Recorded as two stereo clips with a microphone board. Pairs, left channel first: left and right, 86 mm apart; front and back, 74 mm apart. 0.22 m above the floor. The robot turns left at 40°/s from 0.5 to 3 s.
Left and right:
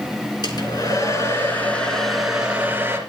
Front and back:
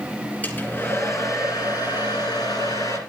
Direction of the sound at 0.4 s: 65° left.